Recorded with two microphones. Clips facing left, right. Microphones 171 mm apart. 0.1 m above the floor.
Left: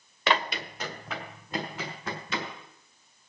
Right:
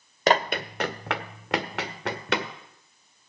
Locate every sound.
0.3 s running footsteps: 40° right (ahead or behind), 1.0 m; by 2.5 s 65° right (ahead or behind), 2.5 m